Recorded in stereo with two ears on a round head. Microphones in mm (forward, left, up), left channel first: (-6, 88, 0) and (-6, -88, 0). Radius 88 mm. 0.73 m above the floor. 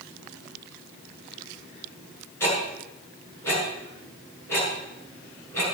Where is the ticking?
15° left (ahead or behind), 6.5 m.